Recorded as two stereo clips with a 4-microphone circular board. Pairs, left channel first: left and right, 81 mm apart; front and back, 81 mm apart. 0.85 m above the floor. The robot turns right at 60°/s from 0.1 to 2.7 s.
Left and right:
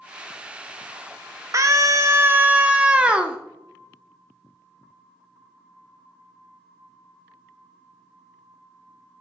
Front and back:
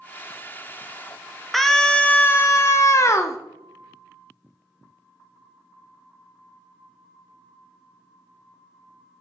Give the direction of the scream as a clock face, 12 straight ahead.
3 o'clock.